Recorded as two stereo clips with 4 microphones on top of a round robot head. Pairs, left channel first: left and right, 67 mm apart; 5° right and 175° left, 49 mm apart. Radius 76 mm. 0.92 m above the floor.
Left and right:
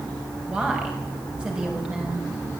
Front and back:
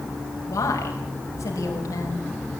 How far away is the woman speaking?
About 5.5 m.